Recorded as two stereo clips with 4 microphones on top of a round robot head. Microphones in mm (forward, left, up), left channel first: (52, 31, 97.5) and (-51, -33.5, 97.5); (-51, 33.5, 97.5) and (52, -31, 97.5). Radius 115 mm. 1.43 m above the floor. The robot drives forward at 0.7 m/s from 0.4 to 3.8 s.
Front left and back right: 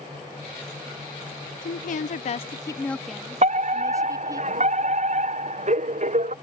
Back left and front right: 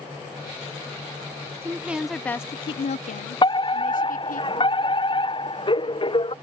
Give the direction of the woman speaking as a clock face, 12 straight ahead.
11 o'clock.